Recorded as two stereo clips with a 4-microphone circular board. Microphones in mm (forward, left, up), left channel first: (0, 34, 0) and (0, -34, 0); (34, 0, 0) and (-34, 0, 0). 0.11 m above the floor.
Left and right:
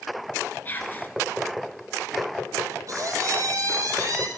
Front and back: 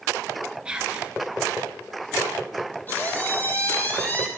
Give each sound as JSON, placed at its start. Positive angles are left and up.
{"t": 0.7, "sound": "whispering", "azimuth_deg": 115, "distance_m": 1.2}
{"t": 2.9, "sound": "a squeak", "azimuth_deg": -60, "distance_m": 1.4}